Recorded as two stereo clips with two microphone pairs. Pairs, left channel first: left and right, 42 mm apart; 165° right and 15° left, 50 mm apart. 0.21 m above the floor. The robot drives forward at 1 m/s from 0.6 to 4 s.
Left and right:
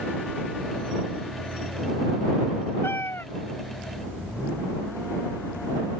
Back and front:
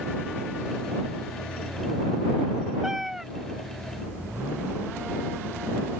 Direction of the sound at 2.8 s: 95° left.